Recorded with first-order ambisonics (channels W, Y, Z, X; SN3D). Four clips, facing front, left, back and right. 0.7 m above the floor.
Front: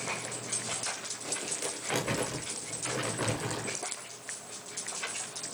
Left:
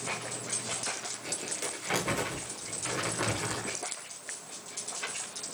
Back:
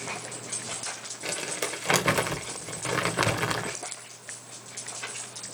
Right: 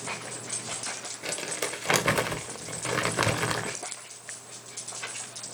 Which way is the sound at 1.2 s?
140° right.